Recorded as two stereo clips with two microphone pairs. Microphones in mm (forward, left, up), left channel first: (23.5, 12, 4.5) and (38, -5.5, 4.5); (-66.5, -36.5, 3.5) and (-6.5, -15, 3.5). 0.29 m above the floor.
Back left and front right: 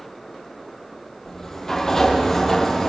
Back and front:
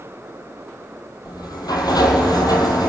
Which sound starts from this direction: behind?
A sliding door, at 1.2 s.